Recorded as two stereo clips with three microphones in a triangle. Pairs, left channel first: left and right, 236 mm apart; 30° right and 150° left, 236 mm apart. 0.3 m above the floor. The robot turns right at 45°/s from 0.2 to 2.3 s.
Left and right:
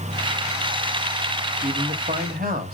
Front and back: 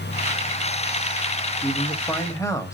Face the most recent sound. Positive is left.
turn(degrees=-100)